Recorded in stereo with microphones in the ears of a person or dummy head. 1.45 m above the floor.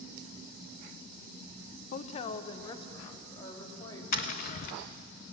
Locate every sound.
1.9 s a woman speaking: 45° left (ahead or behind), 0.7 m; by 4.0 s 25° left (ahead or behind), 3.5 m
4.1 s tapping: 50° left (ahead or behind), 1.2 m